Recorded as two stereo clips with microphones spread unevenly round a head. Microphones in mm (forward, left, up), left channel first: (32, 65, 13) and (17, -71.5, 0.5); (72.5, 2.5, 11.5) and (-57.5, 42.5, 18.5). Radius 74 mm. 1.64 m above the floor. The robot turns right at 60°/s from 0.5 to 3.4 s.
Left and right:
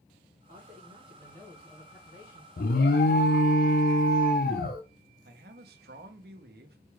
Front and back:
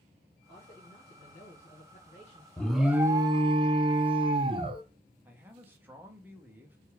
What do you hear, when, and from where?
0.5 s a man speaking: 75° right, 1.6 m; by 2.5 s 45° left, 1.6 m
2.6 s an alarm: 60° left, 0.7 m; by 4.8 s 115° left, 0.7 m
5.2 s a man speaking: 120° right, 0.8 m